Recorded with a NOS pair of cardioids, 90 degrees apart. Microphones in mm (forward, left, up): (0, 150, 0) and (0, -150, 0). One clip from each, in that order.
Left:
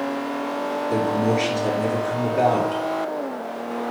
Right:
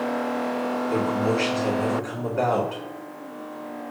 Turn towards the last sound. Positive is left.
turn(degrees=10)